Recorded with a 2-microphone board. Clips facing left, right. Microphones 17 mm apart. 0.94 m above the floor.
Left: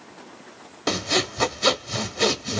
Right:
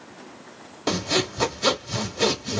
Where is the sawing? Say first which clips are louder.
Left 1 dB; 10° left (ahead or behind), 0.7 m.